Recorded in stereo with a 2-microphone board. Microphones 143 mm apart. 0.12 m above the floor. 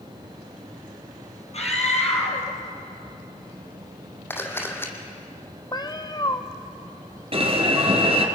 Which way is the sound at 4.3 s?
15° left (ahead or behind).